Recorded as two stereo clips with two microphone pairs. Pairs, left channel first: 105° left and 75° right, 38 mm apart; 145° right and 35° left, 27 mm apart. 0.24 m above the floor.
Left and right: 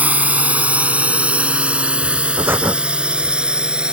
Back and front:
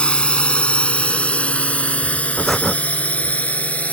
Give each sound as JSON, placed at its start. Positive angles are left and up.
{"t": 0.0, "sound": "a drone", "azimuth_deg": -115}
{"t": 2.4, "sound": "breathing", "azimuth_deg": -70}